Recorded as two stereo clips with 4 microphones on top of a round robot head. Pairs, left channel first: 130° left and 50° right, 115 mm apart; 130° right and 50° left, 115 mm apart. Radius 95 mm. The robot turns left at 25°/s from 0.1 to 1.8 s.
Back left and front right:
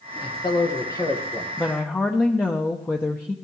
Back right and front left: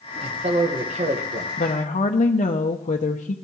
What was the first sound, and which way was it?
A man speaking, 85° left.